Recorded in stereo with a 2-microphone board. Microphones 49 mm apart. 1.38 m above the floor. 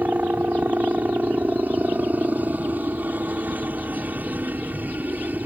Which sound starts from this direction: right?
A helicopter, at 0.0 s.